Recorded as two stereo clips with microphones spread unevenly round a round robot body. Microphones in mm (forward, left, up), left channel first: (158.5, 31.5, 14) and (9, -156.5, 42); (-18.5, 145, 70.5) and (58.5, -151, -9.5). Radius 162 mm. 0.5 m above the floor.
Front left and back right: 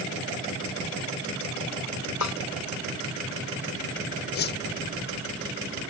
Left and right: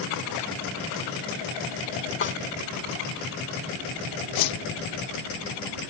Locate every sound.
2.2 s a snare drum: 45° left
4.3 s a whoosh: 90° left